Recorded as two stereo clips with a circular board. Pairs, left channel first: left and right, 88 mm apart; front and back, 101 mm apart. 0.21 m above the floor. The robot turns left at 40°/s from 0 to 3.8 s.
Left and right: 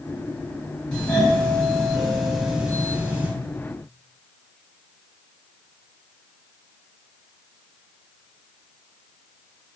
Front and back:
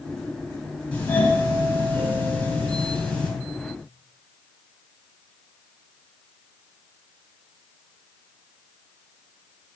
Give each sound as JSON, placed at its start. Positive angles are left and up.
{"t": 0.9, "sound": "a doorbell", "azimuth_deg": 45, "distance_m": 1.5}